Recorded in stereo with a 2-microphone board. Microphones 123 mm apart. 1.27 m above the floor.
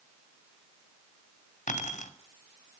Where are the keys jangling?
85° left, 2.5 m.